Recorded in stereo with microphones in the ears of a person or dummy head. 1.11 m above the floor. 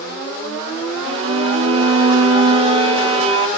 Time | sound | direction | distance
1.1 | a violin | 30° right (ahead or behind) | 1.0 m